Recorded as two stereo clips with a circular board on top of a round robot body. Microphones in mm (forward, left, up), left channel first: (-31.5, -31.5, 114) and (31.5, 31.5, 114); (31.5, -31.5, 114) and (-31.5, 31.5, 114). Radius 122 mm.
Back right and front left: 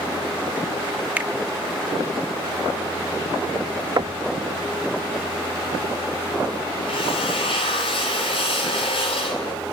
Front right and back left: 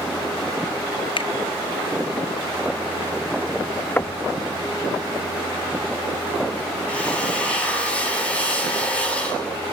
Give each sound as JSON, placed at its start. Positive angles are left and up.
{"t": 1.2, "sound": "a finger snap", "azimuth_deg": -30, "distance_m": 2.0}
{"t": 4.0, "sound": "knocking", "azimuth_deg": 15, "distance_m": 0.8}
{"t": 6.9, "sound": "a drill", "azimuth_deg": -120, "distance_m": 6.5}